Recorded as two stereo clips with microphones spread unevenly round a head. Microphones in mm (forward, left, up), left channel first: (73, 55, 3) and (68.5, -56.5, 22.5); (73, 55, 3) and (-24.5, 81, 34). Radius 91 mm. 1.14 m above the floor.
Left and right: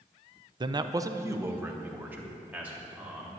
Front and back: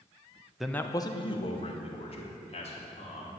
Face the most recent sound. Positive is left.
turn(degrees=-15)